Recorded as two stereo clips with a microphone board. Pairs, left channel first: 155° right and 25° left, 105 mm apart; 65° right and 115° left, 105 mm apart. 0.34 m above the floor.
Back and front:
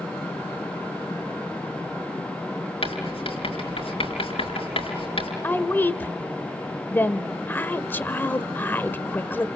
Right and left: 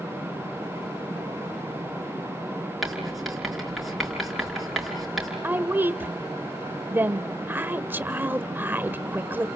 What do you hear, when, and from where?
2.8 s writing: 160° right, 5 m
5.4 s a woman speaking: 160° left, 0.9 m